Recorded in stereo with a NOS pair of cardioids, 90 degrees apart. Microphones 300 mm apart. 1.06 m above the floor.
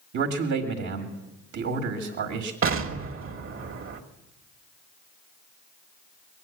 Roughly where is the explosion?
Ahead right.